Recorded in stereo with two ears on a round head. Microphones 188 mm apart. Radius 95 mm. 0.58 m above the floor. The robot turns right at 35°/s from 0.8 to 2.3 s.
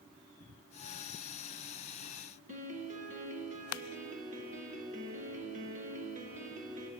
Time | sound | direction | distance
2.5 | a piano | 35° right (ahead or behind) | 0.6 m